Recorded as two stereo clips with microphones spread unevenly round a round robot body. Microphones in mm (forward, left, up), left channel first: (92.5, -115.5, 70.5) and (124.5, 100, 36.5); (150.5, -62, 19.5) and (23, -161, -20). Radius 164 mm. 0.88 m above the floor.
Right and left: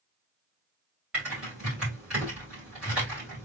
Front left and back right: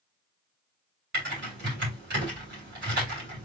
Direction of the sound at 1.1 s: 170° left.